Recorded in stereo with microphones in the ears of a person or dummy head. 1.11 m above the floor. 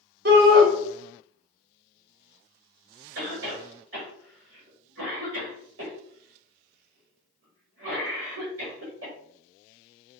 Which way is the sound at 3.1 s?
65° right (ahead or behind).